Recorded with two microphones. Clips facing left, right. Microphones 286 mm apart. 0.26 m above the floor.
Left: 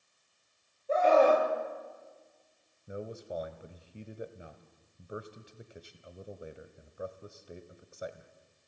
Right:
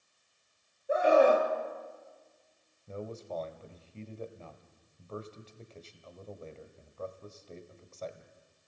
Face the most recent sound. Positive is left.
turn(degrees=15)  # may be behind; listen again after turning